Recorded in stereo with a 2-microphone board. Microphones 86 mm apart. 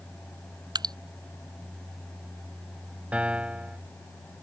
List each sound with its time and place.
0.8 s dripping: 55° right (ahead or behind)
3.1 s a piano: 15° right (ahead or behind)